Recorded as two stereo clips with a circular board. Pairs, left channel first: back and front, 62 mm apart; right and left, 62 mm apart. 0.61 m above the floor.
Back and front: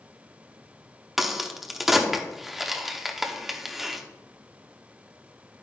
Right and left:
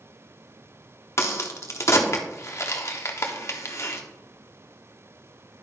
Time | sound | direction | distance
1.2 | a crack | 85° right | 1.0 m